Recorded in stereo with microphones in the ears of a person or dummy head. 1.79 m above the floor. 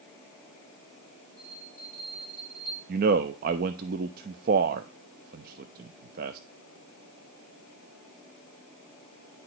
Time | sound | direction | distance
1.4 | a bell | 15° right (ahead or behind) | 8 m
2.9 | a man speaking | 50° right (ahead or behind) | 0.6 m